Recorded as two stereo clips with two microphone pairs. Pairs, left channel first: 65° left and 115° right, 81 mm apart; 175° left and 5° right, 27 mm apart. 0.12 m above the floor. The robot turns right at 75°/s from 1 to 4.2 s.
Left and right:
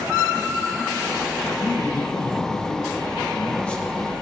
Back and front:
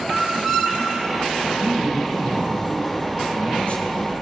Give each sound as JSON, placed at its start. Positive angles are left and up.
{"t": 1.6, "sound": "a man speaking", "azimuth_deg": -20, "distance_m": 2.5}